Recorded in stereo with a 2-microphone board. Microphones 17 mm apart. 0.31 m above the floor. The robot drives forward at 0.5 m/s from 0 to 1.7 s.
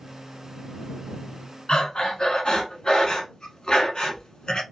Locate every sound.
1.7 s breathing: 50° left (ahead or behind), 0.8 m